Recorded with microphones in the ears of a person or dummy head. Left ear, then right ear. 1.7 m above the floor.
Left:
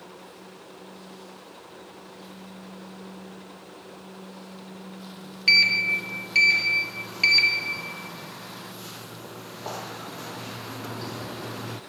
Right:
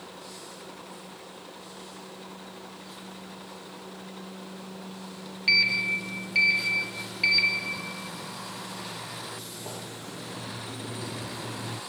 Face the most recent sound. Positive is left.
turn(degrees=50)  # may be behind; listen again after turning